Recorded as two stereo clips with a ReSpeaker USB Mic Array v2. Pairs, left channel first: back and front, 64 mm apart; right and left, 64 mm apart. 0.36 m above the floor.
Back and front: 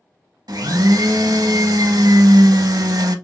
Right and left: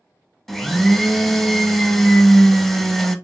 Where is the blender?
5° right, 0.5 m.